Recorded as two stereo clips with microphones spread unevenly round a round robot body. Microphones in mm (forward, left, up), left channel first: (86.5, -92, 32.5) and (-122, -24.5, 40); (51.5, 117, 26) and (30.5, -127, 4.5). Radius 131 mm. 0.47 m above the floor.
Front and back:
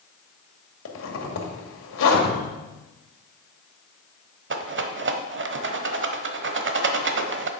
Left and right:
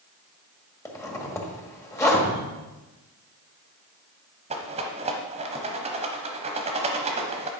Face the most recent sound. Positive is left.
turn(degrees=-165)